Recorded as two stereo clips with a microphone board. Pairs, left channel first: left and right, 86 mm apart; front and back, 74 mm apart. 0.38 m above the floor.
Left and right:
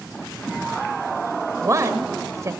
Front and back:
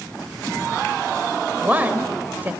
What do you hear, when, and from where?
1.6 s a woman speaking: 125° right, 1.9 m